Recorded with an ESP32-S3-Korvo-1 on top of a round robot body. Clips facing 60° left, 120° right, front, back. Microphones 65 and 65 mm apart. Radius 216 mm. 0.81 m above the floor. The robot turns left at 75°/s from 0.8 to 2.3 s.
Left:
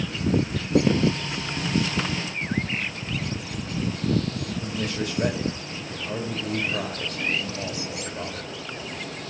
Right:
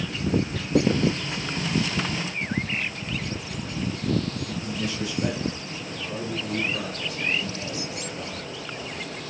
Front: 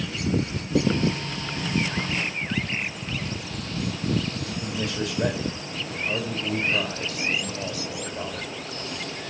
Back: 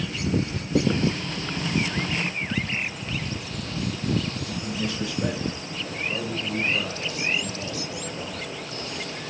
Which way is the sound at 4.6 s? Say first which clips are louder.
Left 1 dB, even; 25° left.